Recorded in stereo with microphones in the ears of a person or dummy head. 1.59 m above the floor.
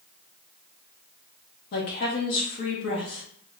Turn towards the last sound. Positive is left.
turn(degrees=55)  # may be behind; listen again after turning